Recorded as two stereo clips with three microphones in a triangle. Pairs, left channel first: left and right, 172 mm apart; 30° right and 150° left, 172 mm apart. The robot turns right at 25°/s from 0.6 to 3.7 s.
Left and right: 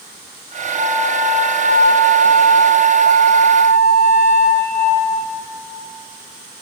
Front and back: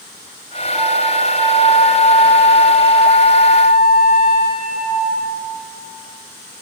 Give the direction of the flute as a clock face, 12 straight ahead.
4 o'clock.